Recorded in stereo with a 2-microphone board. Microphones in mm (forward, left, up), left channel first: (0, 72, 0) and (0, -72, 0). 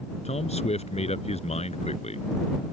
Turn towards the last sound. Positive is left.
turn(degrees=50)  # may be behind; listen again after turning